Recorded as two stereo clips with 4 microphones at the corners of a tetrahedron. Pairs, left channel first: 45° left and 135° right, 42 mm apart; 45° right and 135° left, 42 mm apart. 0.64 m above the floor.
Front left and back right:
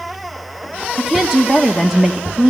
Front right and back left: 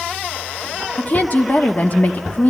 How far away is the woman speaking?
About 1.2 m.